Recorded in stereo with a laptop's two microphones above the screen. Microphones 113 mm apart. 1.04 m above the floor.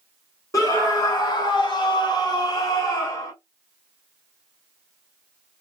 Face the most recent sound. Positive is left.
turn(degrees=25)  # may be behind; listen again after turning